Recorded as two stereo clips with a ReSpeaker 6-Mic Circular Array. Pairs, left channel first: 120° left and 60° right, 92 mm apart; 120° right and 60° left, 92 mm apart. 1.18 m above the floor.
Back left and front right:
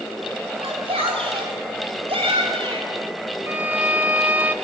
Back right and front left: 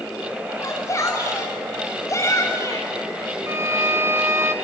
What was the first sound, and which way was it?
A shout, 65° right.